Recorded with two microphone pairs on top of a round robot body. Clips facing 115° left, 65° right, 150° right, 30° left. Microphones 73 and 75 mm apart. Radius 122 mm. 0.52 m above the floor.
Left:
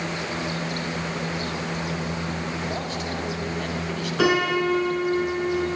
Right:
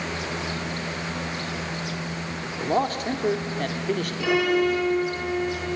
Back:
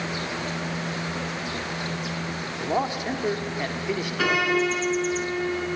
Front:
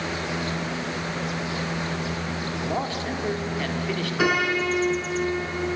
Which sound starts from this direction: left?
A piano, at 4.2 s.